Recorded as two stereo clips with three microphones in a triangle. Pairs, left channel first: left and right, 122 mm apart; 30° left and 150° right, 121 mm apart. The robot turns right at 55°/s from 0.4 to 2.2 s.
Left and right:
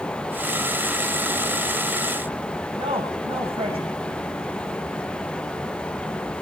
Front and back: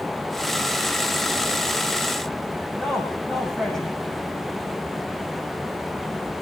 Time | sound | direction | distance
2.8 | a man speaking | 55° right | 6.5 m